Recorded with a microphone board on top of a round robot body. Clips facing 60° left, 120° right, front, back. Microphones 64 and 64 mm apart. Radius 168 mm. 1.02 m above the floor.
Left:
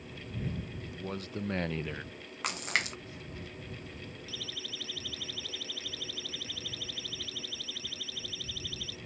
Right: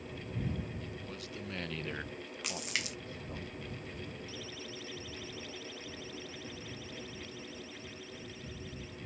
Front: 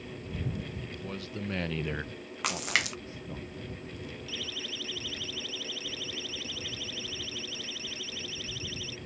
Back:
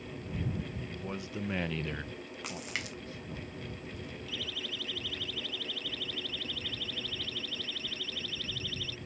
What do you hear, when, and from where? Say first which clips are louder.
0.8 s a man speaking: left 4 dB, even; 110° left; by 3.4 s 65° right
2.4 s a splash: left 7 dB, front 10 dB; 15° left
4.3 s a siren: left 1 dB, back 1 dB; 90° left; by 9.0 s 80° left